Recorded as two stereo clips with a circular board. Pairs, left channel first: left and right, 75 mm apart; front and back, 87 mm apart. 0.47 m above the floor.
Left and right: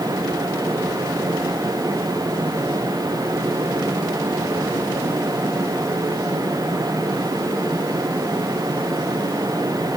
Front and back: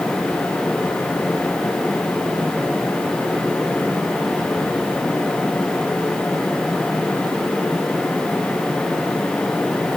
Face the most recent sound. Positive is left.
No sound to turn to.